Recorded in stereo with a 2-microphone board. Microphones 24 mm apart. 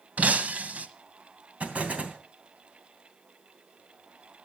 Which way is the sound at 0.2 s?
75° right (ahead or behind).